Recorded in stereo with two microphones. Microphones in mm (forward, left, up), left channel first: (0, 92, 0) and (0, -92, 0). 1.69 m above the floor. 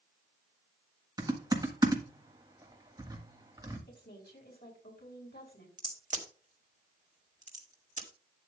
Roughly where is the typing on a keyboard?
Right.